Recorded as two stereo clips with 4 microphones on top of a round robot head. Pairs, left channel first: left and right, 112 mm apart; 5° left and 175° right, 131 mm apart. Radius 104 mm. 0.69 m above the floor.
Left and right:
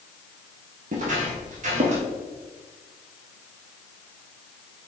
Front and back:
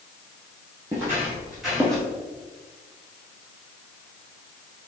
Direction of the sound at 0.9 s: 100° right.